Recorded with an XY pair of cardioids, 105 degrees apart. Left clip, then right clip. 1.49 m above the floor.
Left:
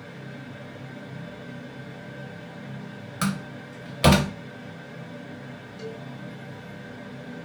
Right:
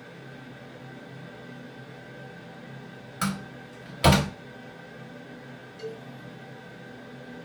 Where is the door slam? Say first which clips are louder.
Left 1 dB; 25° left, 1.2 m.